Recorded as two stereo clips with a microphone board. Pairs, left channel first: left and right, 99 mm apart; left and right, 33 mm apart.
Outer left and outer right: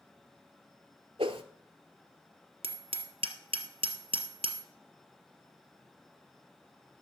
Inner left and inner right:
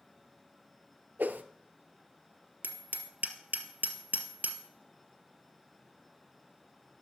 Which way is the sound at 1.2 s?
75° right (ahead or behind).